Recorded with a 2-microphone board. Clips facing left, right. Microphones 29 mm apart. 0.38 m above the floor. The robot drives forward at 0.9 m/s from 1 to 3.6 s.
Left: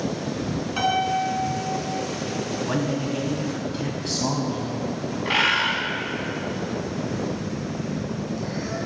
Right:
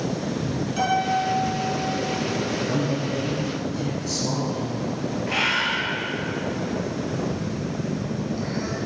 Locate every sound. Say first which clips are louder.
0.8 s a piano: even; 30° left (ahead or behind), 2.5 m; by 2.1 s 50° left (ahead or behind), 1.8 m
2.6 s a man speaking: even; 60° left (ahead or behind), 3 m; by 5.2 s 65° left (ahead or behind), 3 m
5.2 s a bird: left 3 dB; 60° left (ahead or behind), 3.5 m
7.2 s a phone buzzing: right 1 dB; 25° right (ahead or behind), 3 m